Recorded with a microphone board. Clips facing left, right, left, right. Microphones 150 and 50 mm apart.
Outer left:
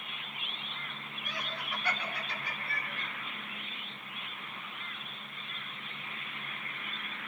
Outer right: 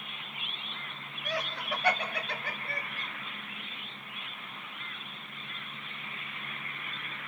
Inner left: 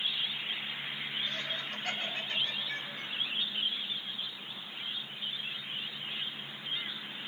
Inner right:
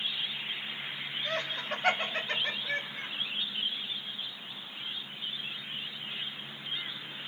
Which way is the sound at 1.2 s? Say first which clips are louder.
Outer right 7 dB, inner right 3 dB; 85° right.